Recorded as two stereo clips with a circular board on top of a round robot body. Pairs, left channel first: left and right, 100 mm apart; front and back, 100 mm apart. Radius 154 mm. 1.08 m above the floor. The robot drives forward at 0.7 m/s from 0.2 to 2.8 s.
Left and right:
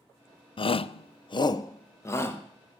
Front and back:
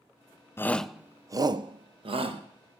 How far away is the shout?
About 0.6 m.